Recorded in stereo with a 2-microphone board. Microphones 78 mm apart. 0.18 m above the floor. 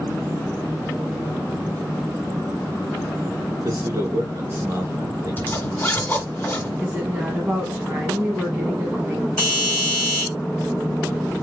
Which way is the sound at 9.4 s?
15° left (ahead or behind).